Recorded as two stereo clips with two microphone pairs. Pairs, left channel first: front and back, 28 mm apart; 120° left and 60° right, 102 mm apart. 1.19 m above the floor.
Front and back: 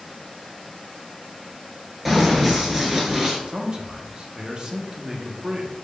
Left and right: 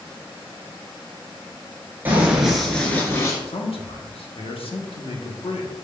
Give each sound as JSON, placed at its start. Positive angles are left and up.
{"t": 2.0, "sound": "running footsteps", "azimuth_deg": -100, "distance_m": 1.2}
{"t": 3.5, "sound": "a man speaking", "azimuth_deg": 125, "distance_m": 0.9}